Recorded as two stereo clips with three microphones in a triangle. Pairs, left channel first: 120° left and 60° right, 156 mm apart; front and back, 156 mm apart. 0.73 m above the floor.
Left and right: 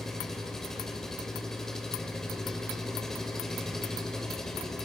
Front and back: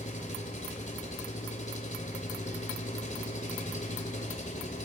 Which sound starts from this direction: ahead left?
An engine running, at 0.0 s.